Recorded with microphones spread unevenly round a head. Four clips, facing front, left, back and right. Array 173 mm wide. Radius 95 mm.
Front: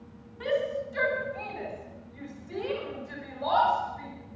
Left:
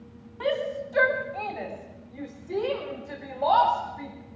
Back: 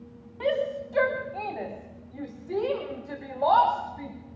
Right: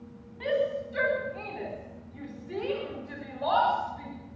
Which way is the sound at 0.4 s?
140° left.